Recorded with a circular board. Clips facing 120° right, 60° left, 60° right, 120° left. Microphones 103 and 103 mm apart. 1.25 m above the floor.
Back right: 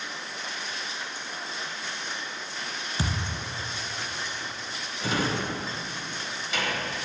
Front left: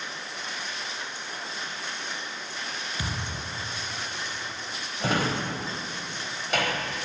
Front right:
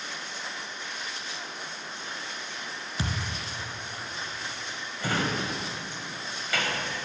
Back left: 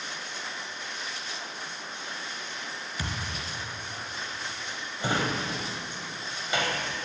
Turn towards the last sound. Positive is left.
turn(degrees=55)